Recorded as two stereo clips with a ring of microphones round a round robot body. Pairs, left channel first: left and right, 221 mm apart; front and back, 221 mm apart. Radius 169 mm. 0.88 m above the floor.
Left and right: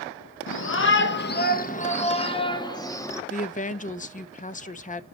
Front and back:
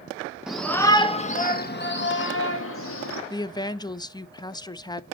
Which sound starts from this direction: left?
A shout, at 0.5 s.